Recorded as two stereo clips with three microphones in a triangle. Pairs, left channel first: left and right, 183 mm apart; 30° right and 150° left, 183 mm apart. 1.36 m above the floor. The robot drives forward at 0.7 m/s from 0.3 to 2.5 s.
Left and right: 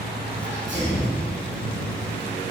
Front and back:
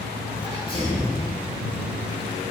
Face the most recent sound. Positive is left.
turn(degrees=-115)